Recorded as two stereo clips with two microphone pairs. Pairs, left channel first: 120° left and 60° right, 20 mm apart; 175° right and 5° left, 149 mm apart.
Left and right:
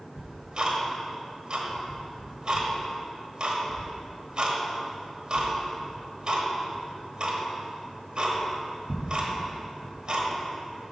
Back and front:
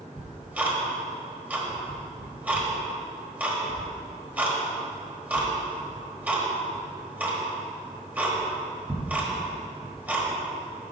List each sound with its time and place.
0.2 s ticking: 70° right, 1.3 m